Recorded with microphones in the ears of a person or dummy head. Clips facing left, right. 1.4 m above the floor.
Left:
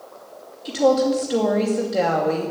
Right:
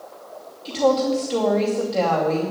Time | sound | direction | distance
0.7 | a woman speaking | 15° left (ahead or behind) | 2.5 m